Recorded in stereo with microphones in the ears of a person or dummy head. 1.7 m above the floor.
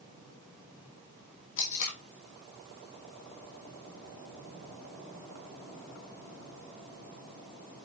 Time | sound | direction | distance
1.6 | tape being pulled | 40° left (ahead or behind) | 1.4 m